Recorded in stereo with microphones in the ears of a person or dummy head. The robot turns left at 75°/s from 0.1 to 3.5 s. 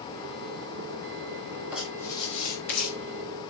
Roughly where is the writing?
Behind.